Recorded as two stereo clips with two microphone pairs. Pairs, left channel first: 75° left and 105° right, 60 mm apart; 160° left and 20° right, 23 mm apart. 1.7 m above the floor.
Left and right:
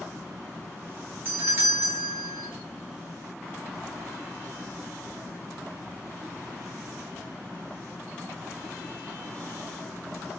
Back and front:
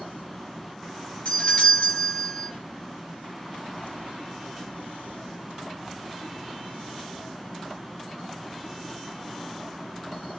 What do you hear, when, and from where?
1.2 s a doorbell: 160° right, 1.0 m